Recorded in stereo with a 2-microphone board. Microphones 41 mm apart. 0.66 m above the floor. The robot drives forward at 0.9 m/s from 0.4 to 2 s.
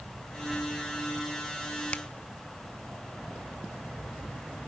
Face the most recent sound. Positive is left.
turn(degrees=35)  # may be behind; listen again after turning